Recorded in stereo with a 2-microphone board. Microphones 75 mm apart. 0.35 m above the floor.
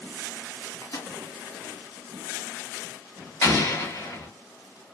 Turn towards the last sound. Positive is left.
turn(degrees=55)  # may be behind; listen again after turning